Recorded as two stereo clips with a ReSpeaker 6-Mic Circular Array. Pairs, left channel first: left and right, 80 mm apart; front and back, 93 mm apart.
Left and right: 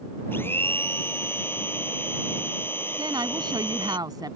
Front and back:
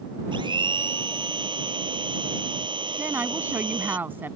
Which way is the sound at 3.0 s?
115° right.